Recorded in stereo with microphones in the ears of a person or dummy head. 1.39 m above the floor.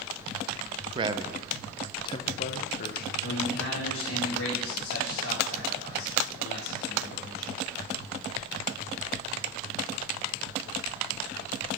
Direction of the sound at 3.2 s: 85° left.